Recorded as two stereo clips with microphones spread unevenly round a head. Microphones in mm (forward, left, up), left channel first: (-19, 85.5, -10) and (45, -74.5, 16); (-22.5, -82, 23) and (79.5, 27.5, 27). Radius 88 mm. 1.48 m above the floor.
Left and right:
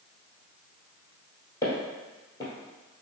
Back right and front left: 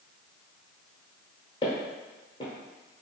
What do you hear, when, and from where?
1.6 s footsteps: 175° right, 1.6 m